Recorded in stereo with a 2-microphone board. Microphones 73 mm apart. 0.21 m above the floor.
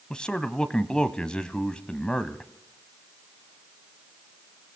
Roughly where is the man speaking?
Centre.